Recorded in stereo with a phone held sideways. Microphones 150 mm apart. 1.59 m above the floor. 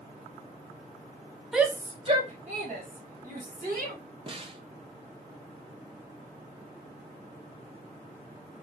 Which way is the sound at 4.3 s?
35° right (ahead or behind).